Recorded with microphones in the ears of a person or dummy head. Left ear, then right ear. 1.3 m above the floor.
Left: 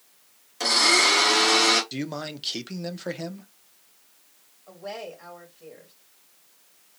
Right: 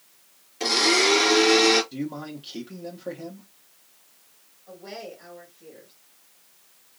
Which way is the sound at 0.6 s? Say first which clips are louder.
Left 1 dB; 50° left (ahead or behind).